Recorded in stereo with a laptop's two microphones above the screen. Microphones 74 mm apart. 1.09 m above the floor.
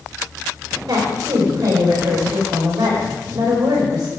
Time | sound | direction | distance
0.9 | a woman speaking | 65° right (ahead or behind) | 4 m